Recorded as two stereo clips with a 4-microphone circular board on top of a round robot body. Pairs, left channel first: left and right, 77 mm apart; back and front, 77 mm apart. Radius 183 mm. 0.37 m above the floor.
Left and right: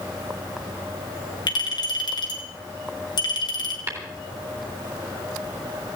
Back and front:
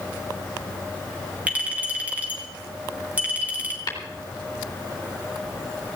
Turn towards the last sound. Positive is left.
turn(degrees=-140)